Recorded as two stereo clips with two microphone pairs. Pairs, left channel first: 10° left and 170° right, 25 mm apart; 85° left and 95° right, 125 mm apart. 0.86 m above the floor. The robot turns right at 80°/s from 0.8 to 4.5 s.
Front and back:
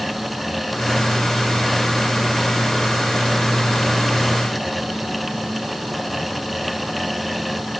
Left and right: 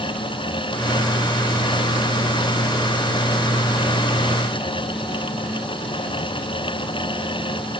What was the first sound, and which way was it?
Only background noise.